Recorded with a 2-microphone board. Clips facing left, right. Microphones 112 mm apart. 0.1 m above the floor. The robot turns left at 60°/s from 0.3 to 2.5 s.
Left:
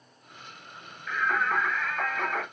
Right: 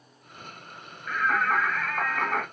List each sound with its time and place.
1.1 s singing: 20° right, 2.5 m; by 2.5 s 105° right, 2.5 m